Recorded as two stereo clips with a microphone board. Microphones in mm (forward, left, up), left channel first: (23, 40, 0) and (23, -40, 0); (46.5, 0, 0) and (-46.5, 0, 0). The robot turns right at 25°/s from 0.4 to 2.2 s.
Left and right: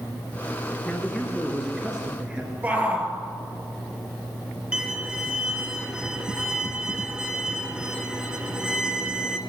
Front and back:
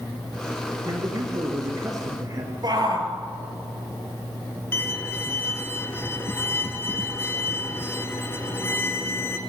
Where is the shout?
155° right, 2.5 m.